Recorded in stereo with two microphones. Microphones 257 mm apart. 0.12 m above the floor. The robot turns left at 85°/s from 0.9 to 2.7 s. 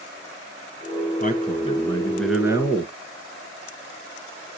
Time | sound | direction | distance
1.2 | a man speaking | 90° left | 1.3 m